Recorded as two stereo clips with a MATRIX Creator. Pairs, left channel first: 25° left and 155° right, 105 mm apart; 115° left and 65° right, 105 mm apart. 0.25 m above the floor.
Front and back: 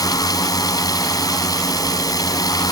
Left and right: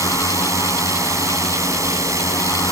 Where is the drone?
20° right.